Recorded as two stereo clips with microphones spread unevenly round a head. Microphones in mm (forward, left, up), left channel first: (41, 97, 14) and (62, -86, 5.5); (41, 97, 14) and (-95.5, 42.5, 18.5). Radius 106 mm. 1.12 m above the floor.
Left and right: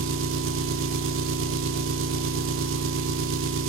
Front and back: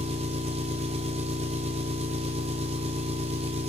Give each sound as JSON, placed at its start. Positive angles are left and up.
{"t": 0.0, "sound": "an engine running", "azimuth_deg": -100, "distance_m": 0.7}